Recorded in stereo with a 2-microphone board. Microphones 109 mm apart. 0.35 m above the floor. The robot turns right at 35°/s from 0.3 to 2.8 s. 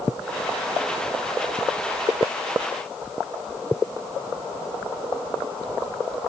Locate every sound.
Only background noise.